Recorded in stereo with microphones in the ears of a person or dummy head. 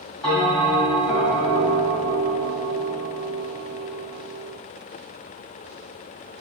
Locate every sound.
0.2 s a bell: 15° left (ahead or behind), 1.7 m